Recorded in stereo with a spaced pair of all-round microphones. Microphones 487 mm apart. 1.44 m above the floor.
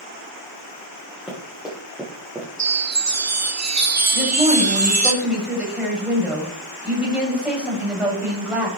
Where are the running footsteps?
Centre (ahead or behind), 6.5 m; by 2.5 s 5° right (ahead or behind), 6 m.